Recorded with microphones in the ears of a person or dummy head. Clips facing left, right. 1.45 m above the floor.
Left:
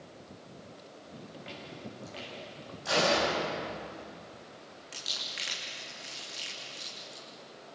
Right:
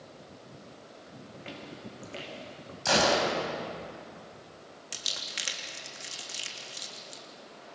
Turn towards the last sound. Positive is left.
turn(degrees=-50)  # may be behind; listen again after turning